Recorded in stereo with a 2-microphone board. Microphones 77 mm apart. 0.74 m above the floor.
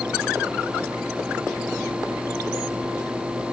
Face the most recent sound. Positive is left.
No sound to turn to.